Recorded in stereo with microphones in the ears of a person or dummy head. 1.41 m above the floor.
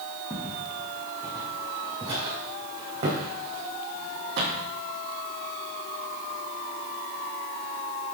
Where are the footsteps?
5° right (ahead or behind), 3 m; by 4.7 s 55° right (ahead or behind), 3 m.